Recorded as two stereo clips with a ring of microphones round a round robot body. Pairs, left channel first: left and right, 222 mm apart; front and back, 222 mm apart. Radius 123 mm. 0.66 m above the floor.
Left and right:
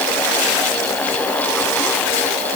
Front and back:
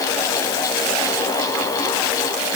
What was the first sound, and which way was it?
Only background noise.